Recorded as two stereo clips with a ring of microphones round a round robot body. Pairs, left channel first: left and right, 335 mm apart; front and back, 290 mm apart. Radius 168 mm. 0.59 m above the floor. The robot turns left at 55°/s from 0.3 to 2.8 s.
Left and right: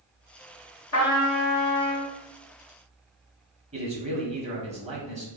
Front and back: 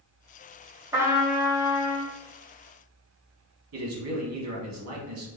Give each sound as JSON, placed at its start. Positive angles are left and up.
{"t": 0.9, "sound": "a trumpet", "azimuth_deg": 110, "distance_m": 1.3}
{"t": 3.7, "sound": "a man speaking", "azimuth_deg": -155, "distance_m": 1.2}